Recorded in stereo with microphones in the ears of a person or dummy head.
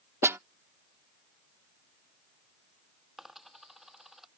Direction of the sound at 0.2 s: 15° right (ahead or behind).